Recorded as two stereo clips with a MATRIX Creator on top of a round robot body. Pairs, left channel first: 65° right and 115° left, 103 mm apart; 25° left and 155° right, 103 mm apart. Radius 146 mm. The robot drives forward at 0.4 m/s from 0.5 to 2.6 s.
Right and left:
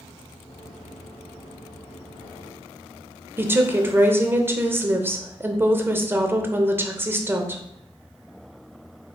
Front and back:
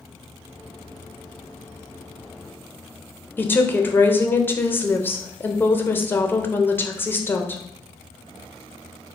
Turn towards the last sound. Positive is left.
turn(degrees=70)